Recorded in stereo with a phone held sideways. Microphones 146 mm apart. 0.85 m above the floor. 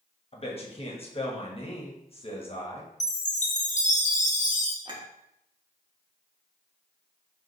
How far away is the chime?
About 0.5 m.